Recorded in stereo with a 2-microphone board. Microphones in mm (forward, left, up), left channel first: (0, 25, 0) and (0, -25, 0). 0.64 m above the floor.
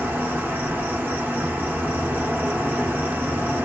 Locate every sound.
0.0 s an insect: 40° right (ahead or behind), 0.8 m